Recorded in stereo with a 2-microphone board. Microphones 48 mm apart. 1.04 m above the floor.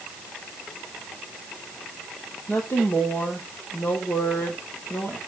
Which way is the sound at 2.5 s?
45° left (ahead or behind).